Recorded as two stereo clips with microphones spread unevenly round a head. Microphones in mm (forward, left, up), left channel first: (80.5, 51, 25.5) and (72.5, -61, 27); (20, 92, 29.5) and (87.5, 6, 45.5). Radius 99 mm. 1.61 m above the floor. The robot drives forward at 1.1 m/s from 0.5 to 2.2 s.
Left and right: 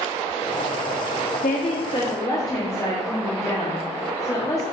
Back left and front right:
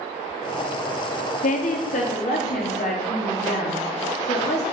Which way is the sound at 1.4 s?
130° left.